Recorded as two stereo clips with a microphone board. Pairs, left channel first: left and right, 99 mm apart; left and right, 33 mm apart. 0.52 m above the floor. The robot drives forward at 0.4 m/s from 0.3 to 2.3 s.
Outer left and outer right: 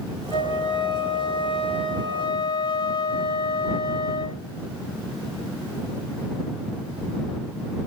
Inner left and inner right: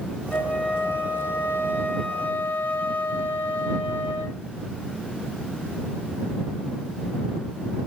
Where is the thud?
No thud in this recording.